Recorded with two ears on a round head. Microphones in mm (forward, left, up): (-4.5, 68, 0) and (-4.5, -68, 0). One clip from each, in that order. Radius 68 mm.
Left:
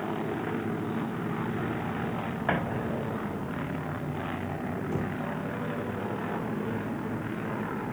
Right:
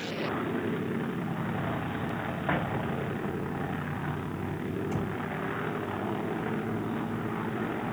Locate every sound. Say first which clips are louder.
2.5 s an explosion: left 2 dB; 60° left (ahead or behind), 5 m
4.9 s knocking: left 1 dB; 50° right (ahead or behind), 4 m